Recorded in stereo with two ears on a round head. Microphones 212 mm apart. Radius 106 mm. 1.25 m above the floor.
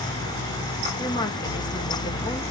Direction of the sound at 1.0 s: 20° left (ahead or behind).